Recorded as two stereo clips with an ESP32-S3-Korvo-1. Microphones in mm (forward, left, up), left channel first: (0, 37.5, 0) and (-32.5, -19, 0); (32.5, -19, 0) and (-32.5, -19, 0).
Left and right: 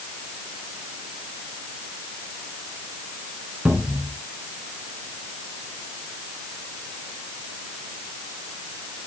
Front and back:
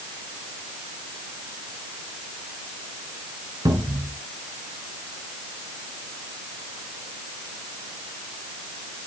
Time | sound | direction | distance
3.6 | a cupboard door | 170° left | 4 m